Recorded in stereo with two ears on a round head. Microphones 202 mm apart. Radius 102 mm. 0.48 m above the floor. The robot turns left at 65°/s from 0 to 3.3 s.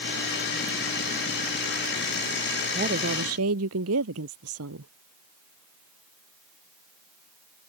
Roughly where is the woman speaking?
Ahead right.